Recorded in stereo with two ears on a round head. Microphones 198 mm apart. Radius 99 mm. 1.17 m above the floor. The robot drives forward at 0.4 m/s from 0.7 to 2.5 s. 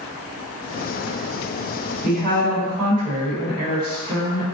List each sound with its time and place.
2.0 s a woman speaking: 45° right (ahead or behind), 1.3 m; by 4.4 s 40° right (ahead or behind), 1.4 m